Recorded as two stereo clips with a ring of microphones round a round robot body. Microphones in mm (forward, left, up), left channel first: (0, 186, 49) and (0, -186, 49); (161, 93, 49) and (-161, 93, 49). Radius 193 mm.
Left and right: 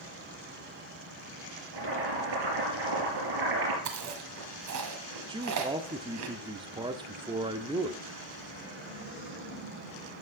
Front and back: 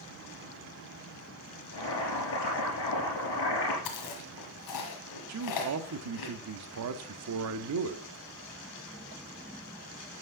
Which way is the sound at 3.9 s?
40° right.